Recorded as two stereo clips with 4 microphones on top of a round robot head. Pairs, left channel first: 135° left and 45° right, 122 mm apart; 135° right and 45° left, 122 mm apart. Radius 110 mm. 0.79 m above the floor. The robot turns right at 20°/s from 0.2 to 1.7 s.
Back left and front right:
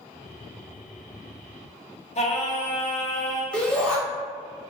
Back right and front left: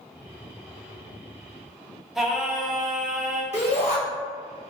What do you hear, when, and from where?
2.1 s singing: 130° left, 0.9 m
3.5 s a shout: 145° right, 1.6 m